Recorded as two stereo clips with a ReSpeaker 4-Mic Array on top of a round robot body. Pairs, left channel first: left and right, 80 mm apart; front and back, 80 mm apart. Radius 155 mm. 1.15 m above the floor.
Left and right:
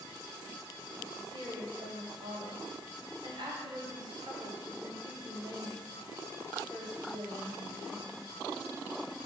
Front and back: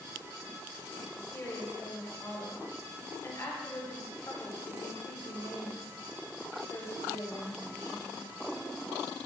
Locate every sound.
1.1 s a woman speaking: 60° right, 1.2 m